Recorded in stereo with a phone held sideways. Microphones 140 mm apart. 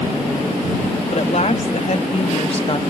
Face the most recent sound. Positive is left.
turn(degrees=40)  # may be behind; listen again after turning